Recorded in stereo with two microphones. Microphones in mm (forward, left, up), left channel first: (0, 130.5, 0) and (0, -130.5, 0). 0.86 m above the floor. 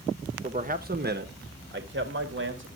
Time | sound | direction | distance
0.4 | a man speaking | 25° right (ahead or behind) | 0.9 m